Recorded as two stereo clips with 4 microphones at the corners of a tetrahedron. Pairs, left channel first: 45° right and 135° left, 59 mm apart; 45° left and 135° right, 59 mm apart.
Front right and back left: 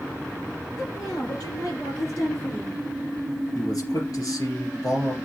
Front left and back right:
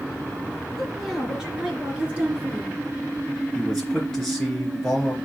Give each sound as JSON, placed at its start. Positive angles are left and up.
{"t": 0.8, "sound": "a woman speaking", "azimuth_deg": -45, "distance_m": 4.5}
{"t": 3.5, "sound": "a man speaking", "azimuth_deg": -35, "distance_m": 3.0}